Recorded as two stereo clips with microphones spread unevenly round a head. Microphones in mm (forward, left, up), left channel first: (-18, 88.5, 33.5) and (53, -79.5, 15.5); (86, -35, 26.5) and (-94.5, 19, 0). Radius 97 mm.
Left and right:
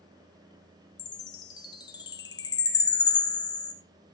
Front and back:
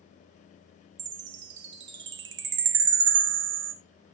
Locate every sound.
1.0 s a chime: 170° left, 0.7 m